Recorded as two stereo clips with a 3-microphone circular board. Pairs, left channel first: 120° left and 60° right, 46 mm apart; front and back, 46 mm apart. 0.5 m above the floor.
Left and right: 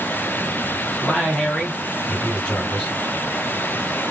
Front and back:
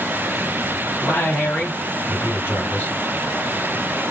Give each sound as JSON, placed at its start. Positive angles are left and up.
{"t": 1.0, "sound": "a man speaking", "azimuth_deg": 55, "distance_m": 2.0}